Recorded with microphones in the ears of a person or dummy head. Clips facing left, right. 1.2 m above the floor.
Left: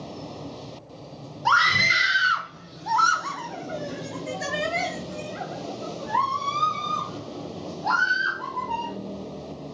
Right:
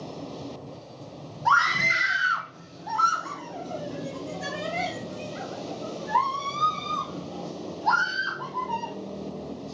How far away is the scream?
About 1.8 m.